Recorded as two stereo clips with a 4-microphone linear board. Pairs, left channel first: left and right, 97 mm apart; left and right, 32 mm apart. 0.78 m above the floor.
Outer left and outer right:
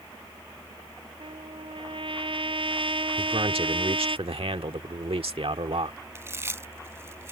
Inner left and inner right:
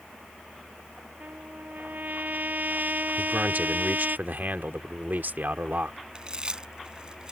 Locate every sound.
1.2 s a trumpet: 65° right (ahead or behind)
3.2 s a man speaking: 75° right (ahead or behind)
6.2 s chewing: 25° right (ahead or behind)